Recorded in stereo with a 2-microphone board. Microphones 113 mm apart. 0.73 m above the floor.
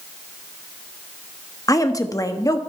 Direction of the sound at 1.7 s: 30° left (ahead or behind).